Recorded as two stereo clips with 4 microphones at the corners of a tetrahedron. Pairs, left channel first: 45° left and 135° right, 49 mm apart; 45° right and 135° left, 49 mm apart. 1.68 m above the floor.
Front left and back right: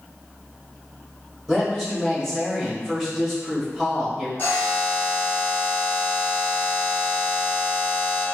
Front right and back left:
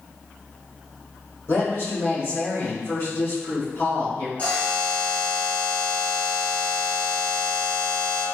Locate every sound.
1.5 s a woman speaking: 45° right, 1.7 m
4.4 s a buzzer: straight ahead, 1.2 m